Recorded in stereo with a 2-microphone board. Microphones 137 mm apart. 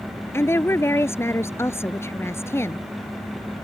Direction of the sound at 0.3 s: 20° left (ahead or behind).